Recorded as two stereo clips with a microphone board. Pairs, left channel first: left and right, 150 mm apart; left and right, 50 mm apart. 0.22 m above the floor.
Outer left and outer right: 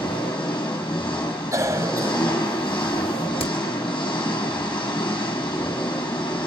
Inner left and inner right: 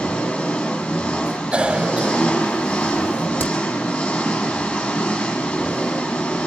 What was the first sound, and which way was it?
An engine running, 35° left (ahead or behind).